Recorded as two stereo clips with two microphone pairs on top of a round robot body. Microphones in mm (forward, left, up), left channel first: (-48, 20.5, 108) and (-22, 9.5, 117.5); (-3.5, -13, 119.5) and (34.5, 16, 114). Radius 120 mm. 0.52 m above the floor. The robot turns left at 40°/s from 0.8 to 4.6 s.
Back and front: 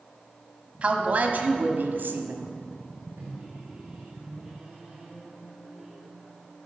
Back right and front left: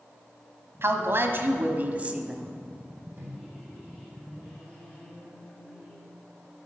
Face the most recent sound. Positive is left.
turn(degrees=-65)